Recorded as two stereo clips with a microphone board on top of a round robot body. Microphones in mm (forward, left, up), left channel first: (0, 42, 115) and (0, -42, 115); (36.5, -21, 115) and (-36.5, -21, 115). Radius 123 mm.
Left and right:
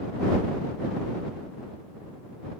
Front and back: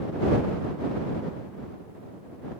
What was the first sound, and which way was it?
Only background noise.